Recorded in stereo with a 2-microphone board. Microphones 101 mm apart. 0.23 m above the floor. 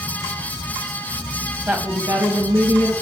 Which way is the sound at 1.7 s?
15° right (ahead or behind).